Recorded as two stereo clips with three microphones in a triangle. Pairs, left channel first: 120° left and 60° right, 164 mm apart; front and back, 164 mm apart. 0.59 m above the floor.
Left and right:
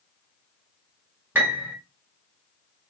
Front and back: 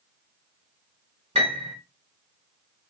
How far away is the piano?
About 1.4 m.